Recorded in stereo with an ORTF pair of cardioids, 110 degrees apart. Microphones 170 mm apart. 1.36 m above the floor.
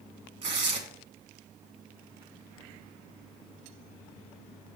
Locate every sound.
0.4 s tearing paper: 50° right, 1.7 m